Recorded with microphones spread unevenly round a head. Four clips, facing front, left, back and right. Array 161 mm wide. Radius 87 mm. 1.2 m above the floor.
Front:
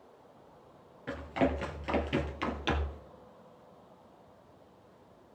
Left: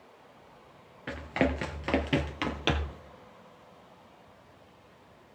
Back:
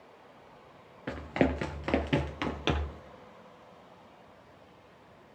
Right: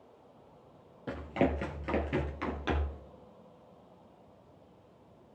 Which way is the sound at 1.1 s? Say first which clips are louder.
Left 1 dB, back 2 dB; 175° left.